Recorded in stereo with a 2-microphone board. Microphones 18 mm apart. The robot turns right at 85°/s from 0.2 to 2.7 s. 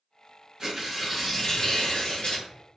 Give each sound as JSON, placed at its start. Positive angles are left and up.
{"t": 0.6, "sound": "tearing paper", "azimuth_deg": -45, "distance_m": 0.8}